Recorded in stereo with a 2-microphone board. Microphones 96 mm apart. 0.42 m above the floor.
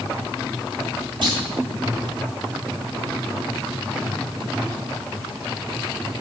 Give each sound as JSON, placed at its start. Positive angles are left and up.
{"t": 1.2, "sound": "a clunk", "side_deg": -55, "distance_m": 1.3}